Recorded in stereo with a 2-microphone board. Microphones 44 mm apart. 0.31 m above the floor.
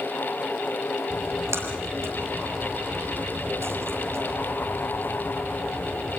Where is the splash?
80° right, 5.5 m.